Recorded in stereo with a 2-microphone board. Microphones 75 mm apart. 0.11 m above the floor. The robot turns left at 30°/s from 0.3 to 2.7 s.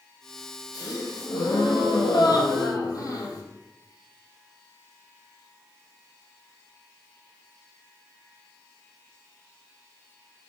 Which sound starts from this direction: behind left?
A gasp, at 0.7 s.